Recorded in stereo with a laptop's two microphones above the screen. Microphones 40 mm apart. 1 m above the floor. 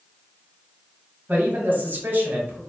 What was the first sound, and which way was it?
A man speaking, 45° right (ahead or behind).